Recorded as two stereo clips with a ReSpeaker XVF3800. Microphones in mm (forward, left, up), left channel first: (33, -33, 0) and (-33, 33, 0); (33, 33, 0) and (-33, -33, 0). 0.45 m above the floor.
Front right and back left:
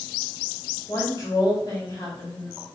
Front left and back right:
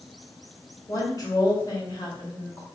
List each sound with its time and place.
0.9 s a woman speaking: 5° left, 1.5 m